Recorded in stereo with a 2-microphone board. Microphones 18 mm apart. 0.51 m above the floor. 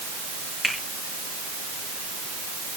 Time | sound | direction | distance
0.6 | a finger snap | 10° left (ahead or behind) | 7.5 m